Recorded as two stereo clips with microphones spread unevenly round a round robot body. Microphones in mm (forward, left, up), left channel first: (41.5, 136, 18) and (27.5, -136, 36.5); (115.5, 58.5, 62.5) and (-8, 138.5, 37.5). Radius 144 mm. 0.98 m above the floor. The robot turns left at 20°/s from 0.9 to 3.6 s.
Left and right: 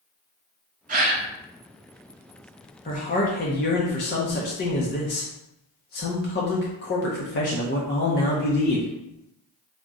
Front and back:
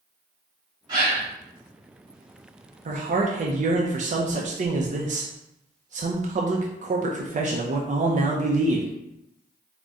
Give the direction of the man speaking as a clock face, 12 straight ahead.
7 o'clock.